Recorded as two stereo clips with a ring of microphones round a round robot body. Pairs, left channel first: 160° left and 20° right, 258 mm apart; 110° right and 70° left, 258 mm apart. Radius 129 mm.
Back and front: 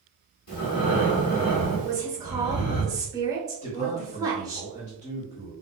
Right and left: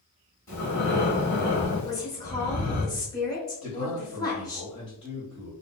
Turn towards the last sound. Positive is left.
turn(degrees=-170)